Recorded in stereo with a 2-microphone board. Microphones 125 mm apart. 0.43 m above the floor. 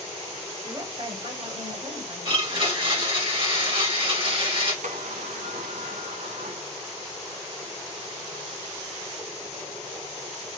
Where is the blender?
45° right (ahead or behind), 2.5 m.